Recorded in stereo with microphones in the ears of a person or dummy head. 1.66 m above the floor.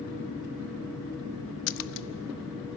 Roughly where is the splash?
Left.